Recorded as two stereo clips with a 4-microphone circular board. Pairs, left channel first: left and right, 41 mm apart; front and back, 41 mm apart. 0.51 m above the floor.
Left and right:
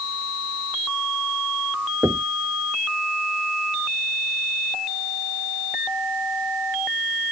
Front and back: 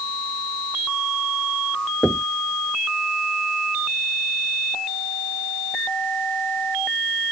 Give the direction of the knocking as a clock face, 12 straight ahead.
3 o'clock.